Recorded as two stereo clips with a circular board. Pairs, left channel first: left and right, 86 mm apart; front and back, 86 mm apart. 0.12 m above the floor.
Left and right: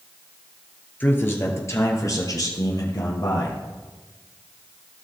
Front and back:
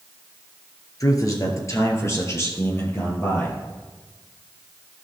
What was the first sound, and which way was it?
A man speaking, 30° left.